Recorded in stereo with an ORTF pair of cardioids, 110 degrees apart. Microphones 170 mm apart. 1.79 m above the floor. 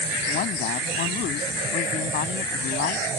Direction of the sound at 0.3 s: 65° left.